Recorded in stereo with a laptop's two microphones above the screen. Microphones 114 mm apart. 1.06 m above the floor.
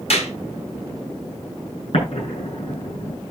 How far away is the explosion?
About 8.5 m.